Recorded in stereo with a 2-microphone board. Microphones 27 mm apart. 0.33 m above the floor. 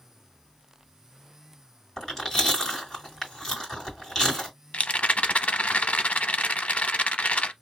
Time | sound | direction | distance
2.0 | chewing | 15° left (ahead or behind) | 2 m
4.7 | a rattle | 75° left (ahead or behind) | 0.5 m